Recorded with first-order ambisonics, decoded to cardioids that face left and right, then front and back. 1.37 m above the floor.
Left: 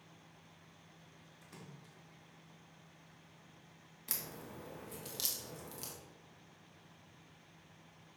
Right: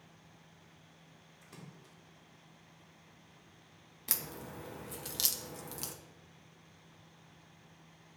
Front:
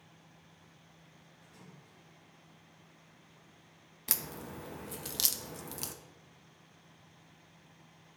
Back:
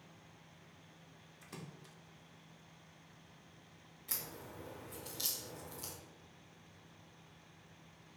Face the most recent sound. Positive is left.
turn(degrees=-25)